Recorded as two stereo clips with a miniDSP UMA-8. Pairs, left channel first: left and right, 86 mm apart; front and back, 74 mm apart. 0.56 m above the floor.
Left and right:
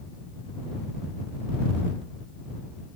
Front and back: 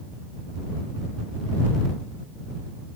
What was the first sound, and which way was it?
Only background noise.